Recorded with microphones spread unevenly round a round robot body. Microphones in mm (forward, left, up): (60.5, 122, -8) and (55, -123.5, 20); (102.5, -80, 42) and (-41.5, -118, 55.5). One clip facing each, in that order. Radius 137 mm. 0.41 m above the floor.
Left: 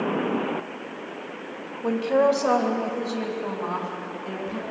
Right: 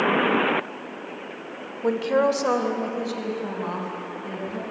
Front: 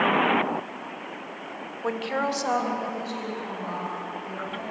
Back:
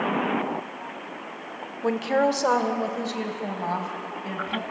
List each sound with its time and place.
1.8 s a woman speaking: 120° right, 1.6 m; by 4.7 s 165° right, 5 m